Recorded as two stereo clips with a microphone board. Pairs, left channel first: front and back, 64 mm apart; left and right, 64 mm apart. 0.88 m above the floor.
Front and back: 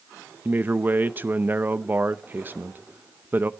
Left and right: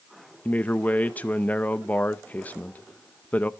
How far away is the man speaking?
About 0.7 m.